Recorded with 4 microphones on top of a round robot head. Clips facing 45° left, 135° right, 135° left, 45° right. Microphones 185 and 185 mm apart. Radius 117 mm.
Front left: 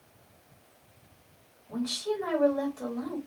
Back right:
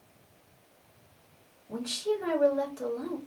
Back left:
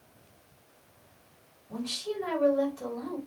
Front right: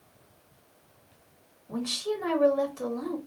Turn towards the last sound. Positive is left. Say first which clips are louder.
# even, front right 4 dB
turn(degrees=-75)